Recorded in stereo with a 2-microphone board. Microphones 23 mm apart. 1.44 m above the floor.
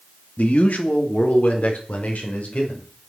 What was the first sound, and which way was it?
A man speaking, 85° left.